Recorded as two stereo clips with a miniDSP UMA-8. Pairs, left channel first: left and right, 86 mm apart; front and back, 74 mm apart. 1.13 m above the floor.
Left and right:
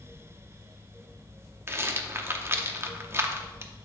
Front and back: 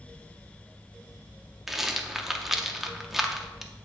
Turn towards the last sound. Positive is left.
turn(degrees=-100)